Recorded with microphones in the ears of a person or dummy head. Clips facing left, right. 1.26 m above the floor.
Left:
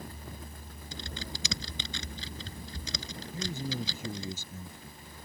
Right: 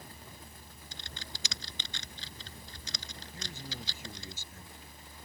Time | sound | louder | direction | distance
0.9 | typing on a keyboard | left 9 dB | 75° left (ahead or behind) | ?
3.3 | a man speaking | left 11 dB | 85° left | ?